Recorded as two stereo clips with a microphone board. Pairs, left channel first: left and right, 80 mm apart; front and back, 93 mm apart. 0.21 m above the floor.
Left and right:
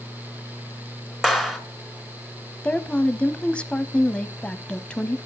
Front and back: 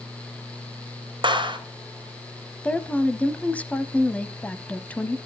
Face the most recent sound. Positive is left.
turn(degrees=45)